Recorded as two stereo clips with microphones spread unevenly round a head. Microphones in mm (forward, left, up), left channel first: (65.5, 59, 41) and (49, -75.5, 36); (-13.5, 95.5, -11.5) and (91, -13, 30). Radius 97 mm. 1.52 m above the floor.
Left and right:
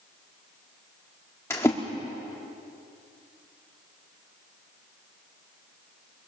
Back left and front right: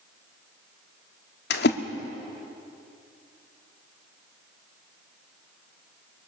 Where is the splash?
155° left, 1.4 m.